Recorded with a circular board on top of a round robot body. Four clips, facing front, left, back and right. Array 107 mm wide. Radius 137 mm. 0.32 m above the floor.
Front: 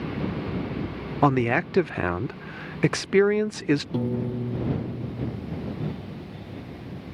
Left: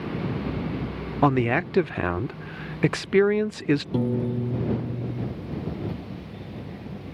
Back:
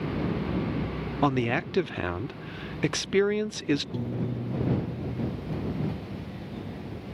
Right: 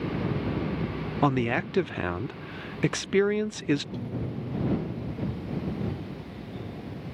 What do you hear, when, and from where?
1.2 s a man speaking: 30° left
3.9 s a piano: 60° left